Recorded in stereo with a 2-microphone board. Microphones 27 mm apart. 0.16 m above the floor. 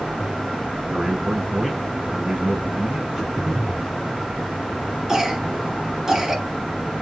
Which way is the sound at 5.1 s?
25° right (ahead or behind).